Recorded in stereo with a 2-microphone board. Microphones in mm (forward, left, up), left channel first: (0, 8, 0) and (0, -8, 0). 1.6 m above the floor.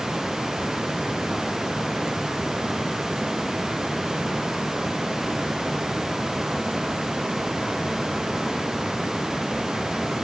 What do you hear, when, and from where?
Only background noise.